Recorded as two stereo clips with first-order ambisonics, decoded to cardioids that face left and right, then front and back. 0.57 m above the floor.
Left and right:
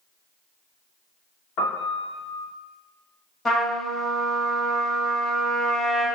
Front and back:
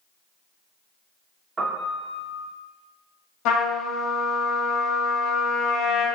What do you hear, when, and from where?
1.6 s a piano: 110° left, 1.0 m
3.5 s a trumpet: 15° left, 1.5 m